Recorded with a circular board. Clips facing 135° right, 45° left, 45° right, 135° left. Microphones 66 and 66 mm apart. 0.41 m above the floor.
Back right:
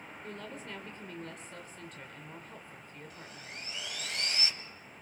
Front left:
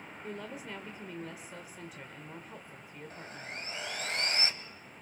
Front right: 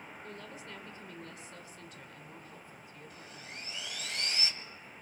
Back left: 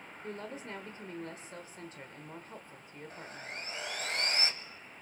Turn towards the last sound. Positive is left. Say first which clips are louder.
# front left 6 dB, back left 5 dB
turn(degrees=90)